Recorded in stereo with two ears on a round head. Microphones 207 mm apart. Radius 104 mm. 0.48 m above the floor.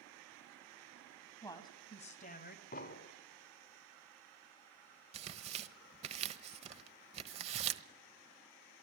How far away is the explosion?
About 1.7 m.